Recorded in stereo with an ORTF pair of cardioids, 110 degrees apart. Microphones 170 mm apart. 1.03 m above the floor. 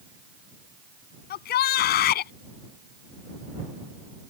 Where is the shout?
70° left.